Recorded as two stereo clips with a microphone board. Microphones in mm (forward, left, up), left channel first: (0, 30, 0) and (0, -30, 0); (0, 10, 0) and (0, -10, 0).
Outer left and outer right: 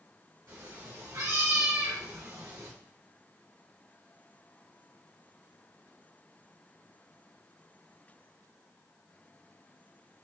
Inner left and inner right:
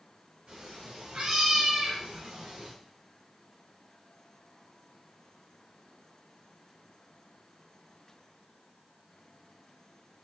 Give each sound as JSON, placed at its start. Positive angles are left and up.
{"t": 0.5, "sound": "a cat meowing", "side_deg": -65, "distance_m": 2.5}